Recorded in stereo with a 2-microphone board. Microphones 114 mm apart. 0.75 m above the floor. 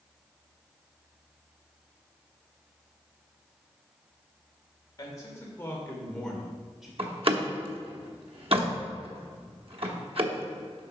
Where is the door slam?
55° right (ahead or behind), 1.0 m.